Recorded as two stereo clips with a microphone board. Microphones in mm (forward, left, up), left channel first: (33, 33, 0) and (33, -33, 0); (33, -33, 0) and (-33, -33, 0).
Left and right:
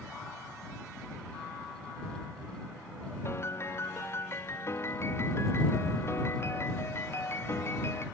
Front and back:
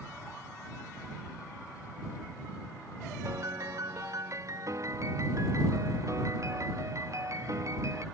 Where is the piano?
140° left.